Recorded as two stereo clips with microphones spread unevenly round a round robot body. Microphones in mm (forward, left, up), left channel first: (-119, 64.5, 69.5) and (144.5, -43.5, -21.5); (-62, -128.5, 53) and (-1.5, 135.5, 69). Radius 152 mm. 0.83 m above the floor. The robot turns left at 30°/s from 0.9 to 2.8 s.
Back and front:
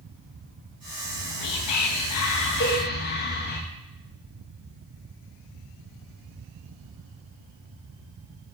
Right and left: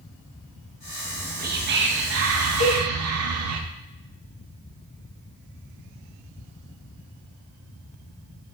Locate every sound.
1.1 s whispering: 145° left, 0.7 m; by 3.6 s 90° left, 0.7 m
2.6 s a cowbell: 140° right, 3 m; by 2.8 s 145° right, 3 m